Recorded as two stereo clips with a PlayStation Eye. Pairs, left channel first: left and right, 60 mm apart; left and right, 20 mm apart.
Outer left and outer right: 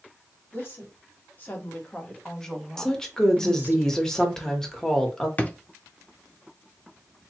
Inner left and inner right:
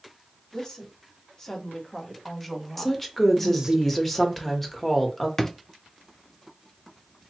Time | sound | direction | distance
0.5 | a woman speaking | 40° left (ahead or behind) | 1.9 m
2.8 | a woman speaking | 10° left (ahead or behind) | 1.0 m
5.4 | a drawer | 25° left (ahead or behind) | 0.6 m